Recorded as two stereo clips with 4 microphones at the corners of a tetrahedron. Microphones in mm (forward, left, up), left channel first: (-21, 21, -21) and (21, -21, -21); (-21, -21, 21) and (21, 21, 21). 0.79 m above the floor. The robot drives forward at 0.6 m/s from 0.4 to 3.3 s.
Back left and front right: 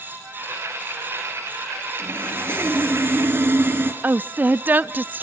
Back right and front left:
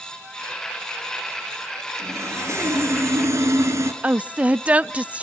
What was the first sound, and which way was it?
Sawing, 10° left.